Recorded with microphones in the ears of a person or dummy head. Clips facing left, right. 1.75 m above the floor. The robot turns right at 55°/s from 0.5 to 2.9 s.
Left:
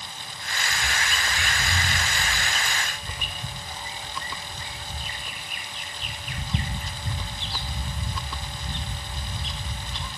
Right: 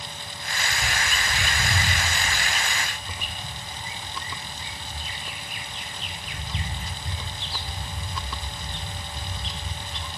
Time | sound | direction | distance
0.7 | a bird | 70° right | 0.7 m